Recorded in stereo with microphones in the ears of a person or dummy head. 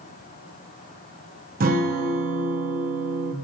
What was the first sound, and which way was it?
A guitar, 40° right (ahead or behind).